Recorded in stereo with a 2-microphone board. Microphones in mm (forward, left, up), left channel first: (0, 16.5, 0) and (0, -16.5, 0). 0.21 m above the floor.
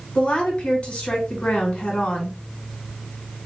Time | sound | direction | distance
0.1 | a woman speaking | 40° left (ahead or behind) | 1.9 m